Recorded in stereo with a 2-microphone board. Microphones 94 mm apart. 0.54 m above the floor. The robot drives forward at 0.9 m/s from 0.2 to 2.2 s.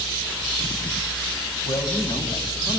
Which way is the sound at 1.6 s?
55° left (ahead or behind).